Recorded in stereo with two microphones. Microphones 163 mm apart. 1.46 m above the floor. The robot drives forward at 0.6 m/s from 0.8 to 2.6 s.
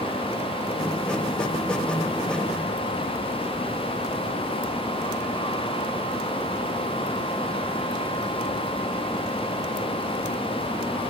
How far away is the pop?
I don't hear a pop.